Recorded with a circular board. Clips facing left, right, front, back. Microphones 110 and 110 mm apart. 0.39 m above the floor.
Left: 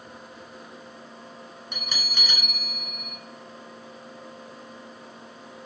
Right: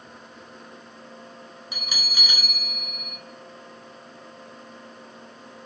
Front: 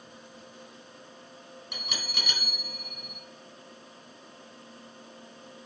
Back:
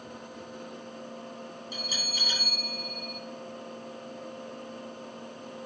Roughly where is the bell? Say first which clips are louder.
Even, front 1 dB; ahead.